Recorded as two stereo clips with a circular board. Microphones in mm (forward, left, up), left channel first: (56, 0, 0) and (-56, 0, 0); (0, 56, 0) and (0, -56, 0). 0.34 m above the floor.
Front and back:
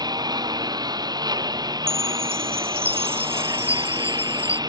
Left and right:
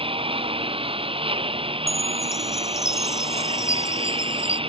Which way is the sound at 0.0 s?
125° right.